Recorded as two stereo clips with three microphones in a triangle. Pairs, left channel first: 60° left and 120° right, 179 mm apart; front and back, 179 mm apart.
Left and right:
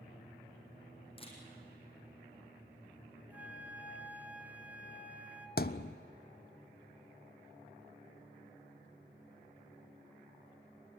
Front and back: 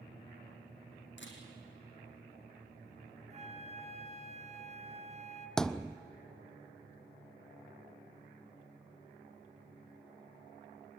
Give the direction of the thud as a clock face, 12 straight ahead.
9 o'clock.